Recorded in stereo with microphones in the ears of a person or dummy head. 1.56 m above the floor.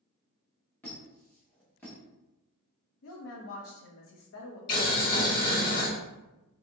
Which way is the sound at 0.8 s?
20° left (ahead or behind).